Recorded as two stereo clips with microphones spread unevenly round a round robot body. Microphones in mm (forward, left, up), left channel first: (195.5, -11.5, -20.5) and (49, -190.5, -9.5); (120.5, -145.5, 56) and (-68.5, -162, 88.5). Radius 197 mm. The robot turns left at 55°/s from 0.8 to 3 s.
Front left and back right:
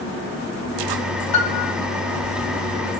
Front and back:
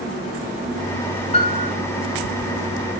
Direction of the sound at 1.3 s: 70° left.